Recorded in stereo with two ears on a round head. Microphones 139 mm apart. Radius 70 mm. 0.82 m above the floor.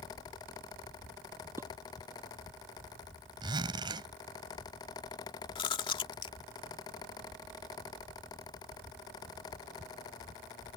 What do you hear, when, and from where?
1.6 s dishes clattering: 15° right (ahead or behind)
3.4 s a zipper: 30° right (ahead or behind)
5.5 s chewing: 35° left (ahead or behind)